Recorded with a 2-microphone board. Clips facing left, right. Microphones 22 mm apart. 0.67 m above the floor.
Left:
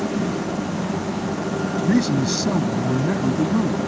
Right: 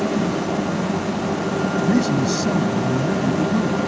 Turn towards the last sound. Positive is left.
turn(degrees=45)  # may be behind; listen again after turning